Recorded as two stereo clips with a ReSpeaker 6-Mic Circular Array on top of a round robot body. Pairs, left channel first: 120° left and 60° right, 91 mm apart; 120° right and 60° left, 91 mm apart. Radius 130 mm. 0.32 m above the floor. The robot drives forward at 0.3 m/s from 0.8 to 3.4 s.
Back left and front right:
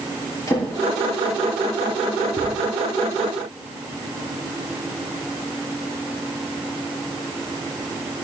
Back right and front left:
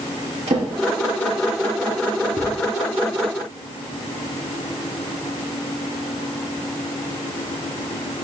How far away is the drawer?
About 5 m.